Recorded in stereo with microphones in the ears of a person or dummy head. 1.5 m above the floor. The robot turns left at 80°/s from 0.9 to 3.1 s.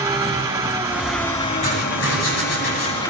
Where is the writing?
150° left, 9.5 m; by 3.1 s 30° left, 9.5 m.